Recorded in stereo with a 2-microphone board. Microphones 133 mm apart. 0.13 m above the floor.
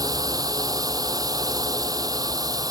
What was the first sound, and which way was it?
A drone, 30° right (ahead or behind).